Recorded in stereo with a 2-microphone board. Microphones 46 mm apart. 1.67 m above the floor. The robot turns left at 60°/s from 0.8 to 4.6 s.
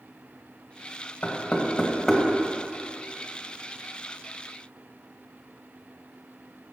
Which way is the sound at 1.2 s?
55° left (ahead or behind).